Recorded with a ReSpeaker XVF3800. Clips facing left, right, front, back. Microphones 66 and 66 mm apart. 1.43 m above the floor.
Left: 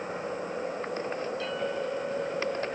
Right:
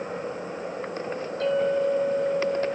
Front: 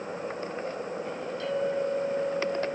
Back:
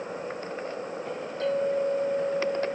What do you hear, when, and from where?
1.4 s a clink: 135° right, 5.5 m